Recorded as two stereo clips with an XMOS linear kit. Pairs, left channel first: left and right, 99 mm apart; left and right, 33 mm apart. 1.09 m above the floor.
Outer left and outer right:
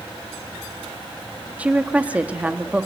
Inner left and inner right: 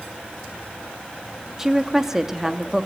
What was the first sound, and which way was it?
A woman speaking, 15° right (ahead or behind).